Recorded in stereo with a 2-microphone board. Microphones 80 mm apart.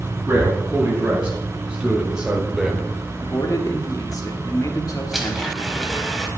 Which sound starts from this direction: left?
A man speaking, at 3.2 s.